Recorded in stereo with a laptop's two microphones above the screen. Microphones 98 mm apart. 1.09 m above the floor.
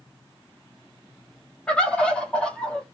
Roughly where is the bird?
Centre.